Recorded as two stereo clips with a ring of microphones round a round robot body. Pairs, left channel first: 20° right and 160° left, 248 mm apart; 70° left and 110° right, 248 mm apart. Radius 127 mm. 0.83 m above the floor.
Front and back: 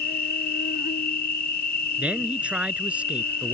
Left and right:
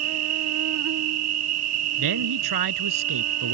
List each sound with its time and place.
0.0 s an insect: 80° right
2.0 s a man speaking: 115° right